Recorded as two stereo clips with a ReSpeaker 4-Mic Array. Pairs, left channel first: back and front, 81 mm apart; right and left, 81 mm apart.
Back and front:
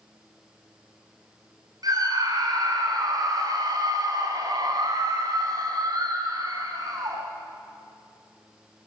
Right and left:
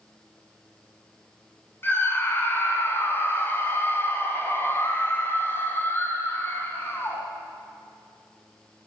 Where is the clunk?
I don't hear a clunk.